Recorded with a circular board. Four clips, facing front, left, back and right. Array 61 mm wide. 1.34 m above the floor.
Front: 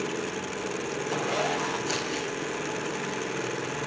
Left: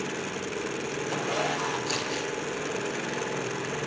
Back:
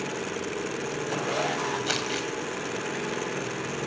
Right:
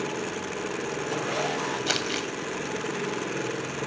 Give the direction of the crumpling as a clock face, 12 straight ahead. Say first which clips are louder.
Right 2 dB, back 1 dB; 4 o'clock.